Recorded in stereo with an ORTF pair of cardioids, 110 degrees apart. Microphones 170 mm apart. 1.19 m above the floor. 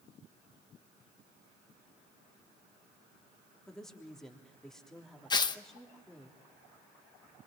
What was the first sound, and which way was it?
A woman speaking, 5° left.